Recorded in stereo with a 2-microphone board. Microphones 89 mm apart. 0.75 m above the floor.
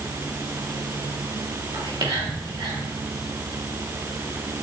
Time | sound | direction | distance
1.7 | whispering | 55° right (ahead or behind) | 1.8 m